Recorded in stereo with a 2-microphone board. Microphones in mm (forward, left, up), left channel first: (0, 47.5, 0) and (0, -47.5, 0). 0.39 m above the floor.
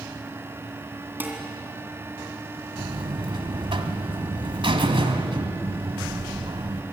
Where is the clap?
No clap in this recording.